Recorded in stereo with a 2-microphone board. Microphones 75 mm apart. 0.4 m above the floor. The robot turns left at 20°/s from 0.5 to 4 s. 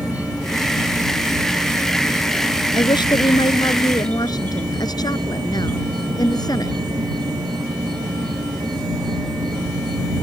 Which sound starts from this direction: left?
A woman speaking, at 2.7 s.